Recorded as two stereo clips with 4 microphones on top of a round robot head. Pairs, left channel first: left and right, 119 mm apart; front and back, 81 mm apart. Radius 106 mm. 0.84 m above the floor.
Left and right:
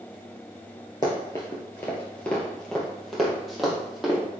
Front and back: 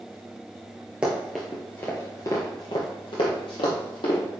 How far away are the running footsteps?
About 0.8 m.